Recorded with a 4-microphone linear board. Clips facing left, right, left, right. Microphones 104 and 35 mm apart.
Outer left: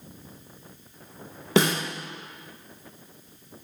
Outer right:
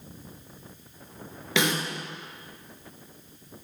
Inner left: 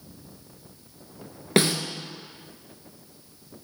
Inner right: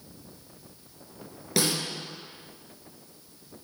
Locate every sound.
1.6 s a snare drum: 40° left (ahead or behind), 1.1 m